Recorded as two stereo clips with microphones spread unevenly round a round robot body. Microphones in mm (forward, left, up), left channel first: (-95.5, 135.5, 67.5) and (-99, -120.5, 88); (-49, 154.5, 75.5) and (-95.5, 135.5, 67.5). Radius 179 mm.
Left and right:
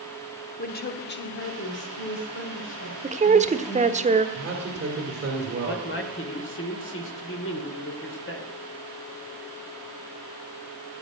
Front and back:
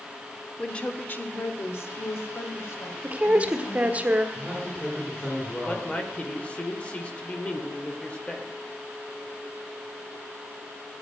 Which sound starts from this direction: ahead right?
A man speaking, at 4.3 s.